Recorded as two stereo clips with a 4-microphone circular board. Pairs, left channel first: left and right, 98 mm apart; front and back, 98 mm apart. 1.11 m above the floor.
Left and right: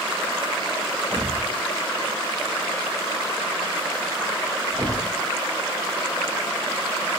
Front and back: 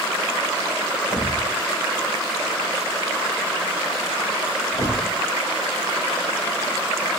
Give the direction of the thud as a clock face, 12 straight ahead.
1 o'clock.